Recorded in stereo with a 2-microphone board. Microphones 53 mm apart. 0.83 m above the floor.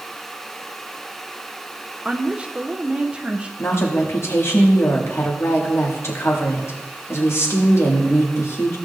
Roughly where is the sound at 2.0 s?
Right.